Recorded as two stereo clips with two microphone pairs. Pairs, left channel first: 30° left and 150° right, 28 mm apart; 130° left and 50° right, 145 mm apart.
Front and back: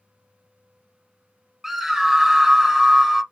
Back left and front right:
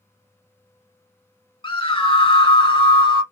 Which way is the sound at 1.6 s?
130° left.